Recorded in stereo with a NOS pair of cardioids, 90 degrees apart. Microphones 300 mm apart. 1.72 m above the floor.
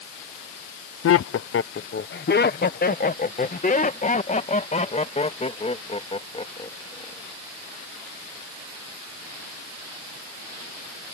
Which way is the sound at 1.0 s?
50° left.